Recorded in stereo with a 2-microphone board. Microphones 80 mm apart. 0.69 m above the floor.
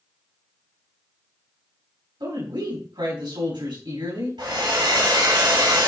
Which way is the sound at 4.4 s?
85° right.